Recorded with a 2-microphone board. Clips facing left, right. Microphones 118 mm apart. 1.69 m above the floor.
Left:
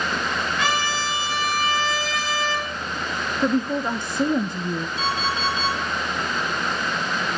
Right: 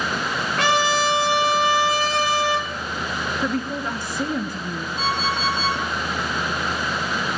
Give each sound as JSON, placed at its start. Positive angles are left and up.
{"t": 0.6, "sound": "a trumpet", "side_deg": -80, "distance_m": 4.5}
{"t": 3.4, "sound": "a woman speaking", "side_deg": 20, "distance_m": 0.8}
{"t": 5.0, "sound": "an alarm clock", "side_deg": -45, "distance_m": 7.5}